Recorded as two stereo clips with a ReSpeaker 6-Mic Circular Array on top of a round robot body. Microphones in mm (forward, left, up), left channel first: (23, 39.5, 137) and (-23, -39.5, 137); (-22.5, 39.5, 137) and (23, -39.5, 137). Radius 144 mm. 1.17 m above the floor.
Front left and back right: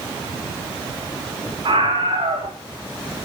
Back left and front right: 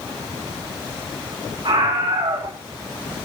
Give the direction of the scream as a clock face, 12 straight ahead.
3 o'clock.